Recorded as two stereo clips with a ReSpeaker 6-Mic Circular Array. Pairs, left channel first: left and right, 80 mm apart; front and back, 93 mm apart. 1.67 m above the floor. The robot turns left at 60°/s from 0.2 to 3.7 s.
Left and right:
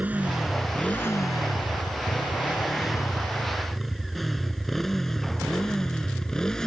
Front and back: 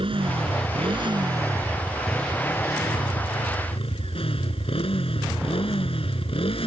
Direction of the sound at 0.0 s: 160° right.